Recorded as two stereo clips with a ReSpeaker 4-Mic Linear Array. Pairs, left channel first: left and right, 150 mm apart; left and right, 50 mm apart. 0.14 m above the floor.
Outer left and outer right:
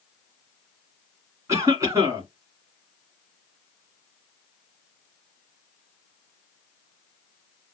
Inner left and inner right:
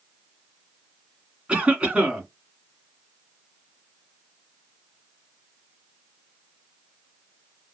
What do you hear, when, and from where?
1.5 s a cough: 20° right (ahead or behind), 1.8 m